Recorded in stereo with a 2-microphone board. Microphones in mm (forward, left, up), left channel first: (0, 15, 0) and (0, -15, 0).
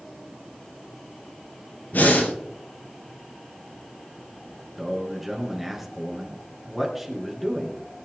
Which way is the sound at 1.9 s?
75° left (ahead or behind).